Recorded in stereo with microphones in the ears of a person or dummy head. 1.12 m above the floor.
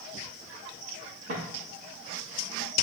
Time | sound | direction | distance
1.3 | footsteps | 50° right (ahead or behind) | 2.5 m